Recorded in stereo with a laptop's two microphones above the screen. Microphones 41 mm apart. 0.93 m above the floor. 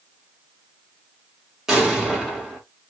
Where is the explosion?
10° right (ahead or behind), 2.0 m.